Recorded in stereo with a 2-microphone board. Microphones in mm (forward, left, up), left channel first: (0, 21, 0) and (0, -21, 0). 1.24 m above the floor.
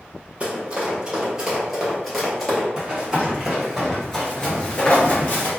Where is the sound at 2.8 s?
20° right (ahead or behind), 1.8 m; by 5.5 s 35° left (ahead or behind), 1.7 m.